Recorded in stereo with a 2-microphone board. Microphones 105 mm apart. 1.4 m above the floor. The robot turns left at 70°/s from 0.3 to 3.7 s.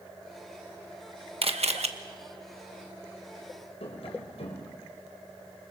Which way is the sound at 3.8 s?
70° left (ahead or behind).